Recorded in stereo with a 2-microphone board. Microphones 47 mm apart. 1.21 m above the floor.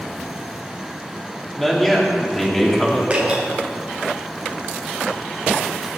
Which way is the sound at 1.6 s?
10° left (ahead or behind).